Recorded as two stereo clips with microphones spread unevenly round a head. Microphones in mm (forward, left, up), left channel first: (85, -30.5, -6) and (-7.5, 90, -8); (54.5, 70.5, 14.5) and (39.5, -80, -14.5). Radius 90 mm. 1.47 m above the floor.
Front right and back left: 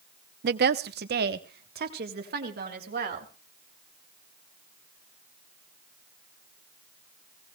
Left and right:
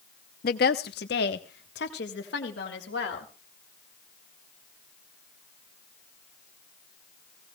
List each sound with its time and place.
0.4 s a woman speaking: 115° left, 0.6 m; by 3.3 s 110° left, 2.5 m